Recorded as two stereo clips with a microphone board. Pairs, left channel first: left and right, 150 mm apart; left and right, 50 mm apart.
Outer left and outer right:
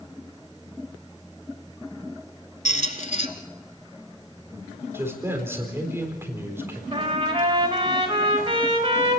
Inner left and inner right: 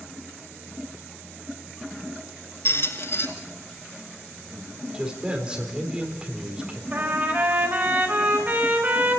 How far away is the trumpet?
About 4 m.